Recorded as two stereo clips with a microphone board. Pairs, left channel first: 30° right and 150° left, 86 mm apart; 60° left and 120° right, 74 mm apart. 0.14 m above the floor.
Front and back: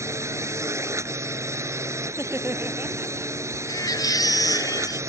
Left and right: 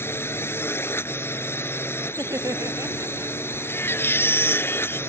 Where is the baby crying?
5° left.